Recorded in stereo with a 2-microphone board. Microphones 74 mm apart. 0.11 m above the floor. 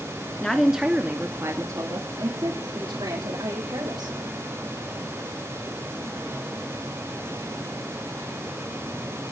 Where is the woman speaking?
10° left (ahead or behind), 1.6 m; by 4.2 s 75° right (ahead or behind), 5 m.